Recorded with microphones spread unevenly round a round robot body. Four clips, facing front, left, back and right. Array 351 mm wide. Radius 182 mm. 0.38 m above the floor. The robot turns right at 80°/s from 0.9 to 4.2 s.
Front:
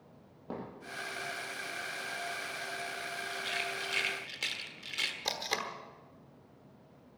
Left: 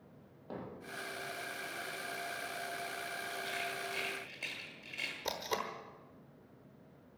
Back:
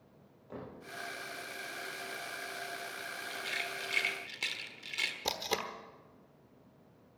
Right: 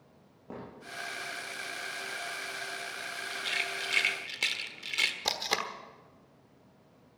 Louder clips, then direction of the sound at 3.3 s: Right 4 dB, front 2 dB; 170° right.